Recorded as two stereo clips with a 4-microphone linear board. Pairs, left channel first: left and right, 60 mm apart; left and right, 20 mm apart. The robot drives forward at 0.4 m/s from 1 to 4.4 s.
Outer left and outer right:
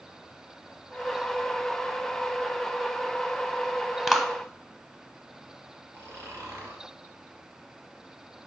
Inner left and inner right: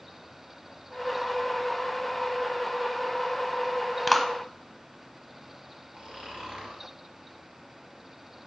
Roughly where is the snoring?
Right.